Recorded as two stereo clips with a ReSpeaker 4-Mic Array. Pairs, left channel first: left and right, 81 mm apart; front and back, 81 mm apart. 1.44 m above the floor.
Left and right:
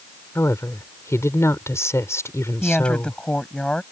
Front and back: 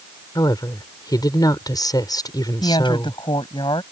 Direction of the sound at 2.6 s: 15° left.